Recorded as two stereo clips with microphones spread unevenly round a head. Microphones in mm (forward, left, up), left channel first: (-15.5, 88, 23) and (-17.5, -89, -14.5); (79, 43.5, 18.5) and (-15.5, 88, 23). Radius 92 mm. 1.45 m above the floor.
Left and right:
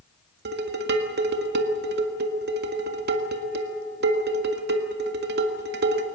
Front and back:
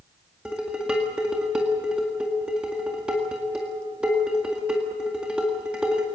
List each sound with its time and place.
0.5 s dishes clattering: 120° right, 1.7 m